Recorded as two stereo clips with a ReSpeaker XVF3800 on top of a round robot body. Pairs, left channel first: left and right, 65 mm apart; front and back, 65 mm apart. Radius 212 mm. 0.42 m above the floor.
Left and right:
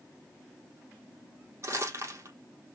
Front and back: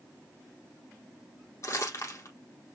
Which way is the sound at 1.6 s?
45° right.